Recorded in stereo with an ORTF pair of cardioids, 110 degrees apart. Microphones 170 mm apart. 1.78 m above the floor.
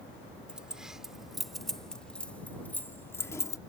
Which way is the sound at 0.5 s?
5° right.